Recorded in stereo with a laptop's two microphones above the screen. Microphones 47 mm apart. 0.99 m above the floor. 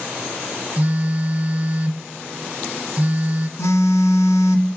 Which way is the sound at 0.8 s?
35° right (ahead or behind).